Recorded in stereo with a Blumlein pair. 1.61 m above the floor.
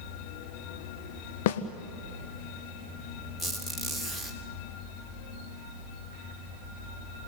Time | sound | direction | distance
1.5 | a snare drum | 50° left | 1.3 m
3.4 | a squeak | 5° left | 3 m